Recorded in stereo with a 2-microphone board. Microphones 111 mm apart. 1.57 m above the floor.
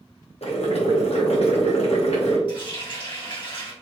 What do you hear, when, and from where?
0.4 s boiling: 70° left (ahead or behind), 0.7 m
2.5 s a running tap: 50° left (ahead or behind), 1.1 m